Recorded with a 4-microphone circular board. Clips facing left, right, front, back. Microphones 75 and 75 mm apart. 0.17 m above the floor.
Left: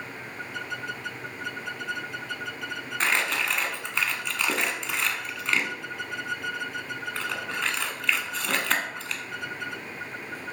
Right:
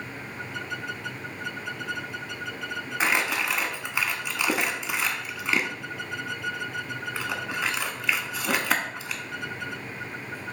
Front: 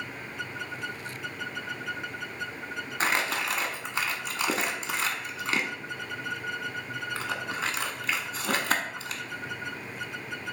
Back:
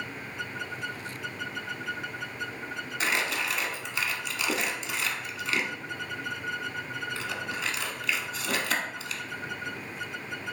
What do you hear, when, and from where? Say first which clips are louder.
3.0 s crumpling: right 1 dB, front 2 dB; 15° right, 0.7 m